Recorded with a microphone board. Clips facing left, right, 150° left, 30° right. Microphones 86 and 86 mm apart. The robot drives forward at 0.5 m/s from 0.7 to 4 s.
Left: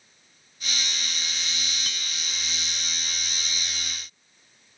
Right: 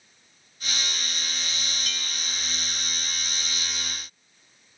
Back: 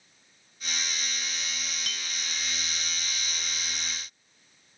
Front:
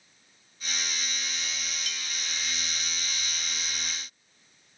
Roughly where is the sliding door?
I don't hear a sliding door.